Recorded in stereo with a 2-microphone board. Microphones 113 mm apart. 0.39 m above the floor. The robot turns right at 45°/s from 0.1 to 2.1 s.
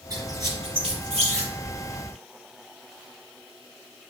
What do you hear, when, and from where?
0.1 s a squeak: 35° right (ahead or behind), 4.5 m; by 1.5 s 80° right, 4.5 m